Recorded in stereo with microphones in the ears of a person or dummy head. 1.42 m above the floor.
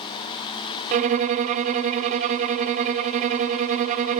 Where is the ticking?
No ticking in this recording.